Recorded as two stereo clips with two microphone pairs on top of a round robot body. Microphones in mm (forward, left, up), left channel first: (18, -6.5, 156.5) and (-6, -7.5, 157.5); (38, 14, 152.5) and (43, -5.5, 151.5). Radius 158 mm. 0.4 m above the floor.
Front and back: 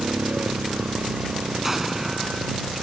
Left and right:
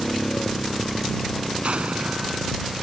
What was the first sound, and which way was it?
A motorcycle, 165° left.